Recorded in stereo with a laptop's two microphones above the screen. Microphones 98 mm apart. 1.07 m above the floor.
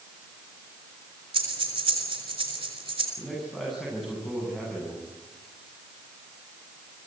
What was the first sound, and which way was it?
Breathing, 60° right (ahead or behind).